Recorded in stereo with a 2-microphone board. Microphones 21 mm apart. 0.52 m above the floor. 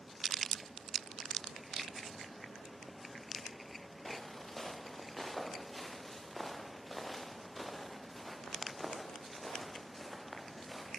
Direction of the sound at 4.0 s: 40° left (ahead or behind).